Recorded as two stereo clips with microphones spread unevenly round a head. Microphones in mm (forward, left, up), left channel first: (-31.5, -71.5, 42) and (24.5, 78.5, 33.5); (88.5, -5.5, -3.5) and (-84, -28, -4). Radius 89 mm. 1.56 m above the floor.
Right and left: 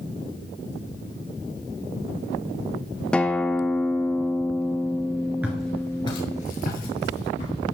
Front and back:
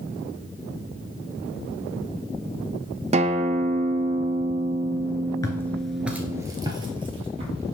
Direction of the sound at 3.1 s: 175° left.